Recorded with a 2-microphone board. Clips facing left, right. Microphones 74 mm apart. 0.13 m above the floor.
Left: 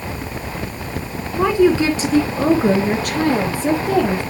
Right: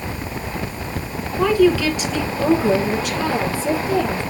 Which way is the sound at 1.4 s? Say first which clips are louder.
Left 1 dB; 15° left (ahead or behind).